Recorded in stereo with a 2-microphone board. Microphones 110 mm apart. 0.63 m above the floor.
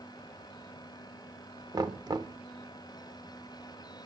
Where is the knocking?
40° right (ahead or behind), 1.1 m.